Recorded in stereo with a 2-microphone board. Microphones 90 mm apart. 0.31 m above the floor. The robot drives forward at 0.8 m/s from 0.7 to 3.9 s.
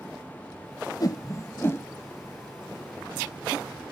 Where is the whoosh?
45° left (ahead or behind); by 1.9 s 25° left (ahead or behind).